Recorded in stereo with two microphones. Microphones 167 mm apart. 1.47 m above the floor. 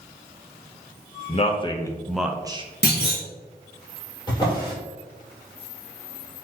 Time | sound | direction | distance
1.3 | a man speaking | 40° left (ahead or behind) | 0.8 m
2.8 | a clunk | 80° left | 1.7 m
4.3 | a drawer | 30° left (ahead or behind) | 2.0 m